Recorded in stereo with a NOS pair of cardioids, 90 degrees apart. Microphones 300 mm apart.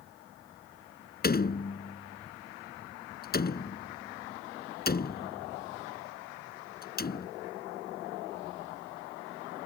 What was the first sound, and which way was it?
A door slam, 30° left.